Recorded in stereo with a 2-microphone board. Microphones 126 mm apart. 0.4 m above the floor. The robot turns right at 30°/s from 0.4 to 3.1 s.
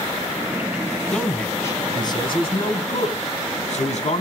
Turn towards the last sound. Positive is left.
turn(degrees=70)